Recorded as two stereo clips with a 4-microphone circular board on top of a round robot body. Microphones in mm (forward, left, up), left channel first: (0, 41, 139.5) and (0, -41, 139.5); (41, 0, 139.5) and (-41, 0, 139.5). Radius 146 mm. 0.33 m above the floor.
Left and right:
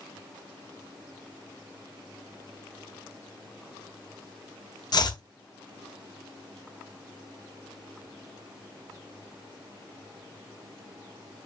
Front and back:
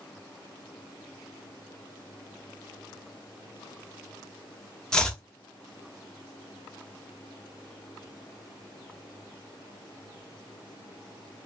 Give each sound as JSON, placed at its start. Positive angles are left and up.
{"t": 4.9, "sound": "chopping", "azimuth_deg": 80, "distance_m": 0.8}